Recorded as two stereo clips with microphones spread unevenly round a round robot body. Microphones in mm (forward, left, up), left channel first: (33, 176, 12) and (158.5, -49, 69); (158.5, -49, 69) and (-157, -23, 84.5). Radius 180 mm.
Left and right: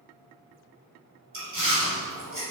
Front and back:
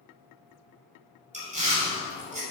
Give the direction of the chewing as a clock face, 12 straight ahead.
4 o'clock.